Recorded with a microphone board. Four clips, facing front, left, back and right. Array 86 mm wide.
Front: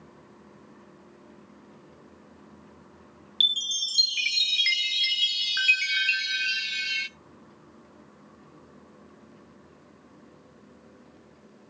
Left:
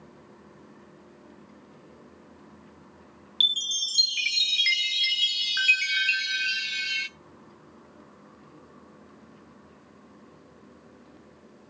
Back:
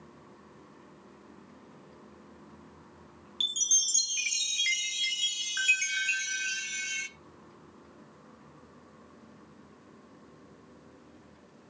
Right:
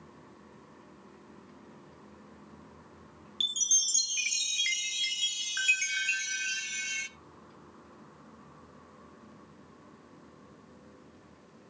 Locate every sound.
3.4 s a chime: 40° left, 0.5 m